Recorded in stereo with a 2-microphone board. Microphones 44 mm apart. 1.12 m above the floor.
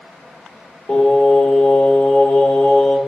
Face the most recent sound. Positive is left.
turn(degrees=45)  # may be behind; listen again after turning